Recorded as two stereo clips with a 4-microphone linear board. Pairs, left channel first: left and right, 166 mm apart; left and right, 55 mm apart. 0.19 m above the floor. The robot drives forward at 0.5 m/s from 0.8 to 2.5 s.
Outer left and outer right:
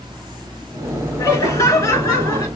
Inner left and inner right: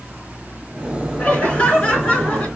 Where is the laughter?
20° left (ahead or behind), 2.5 m.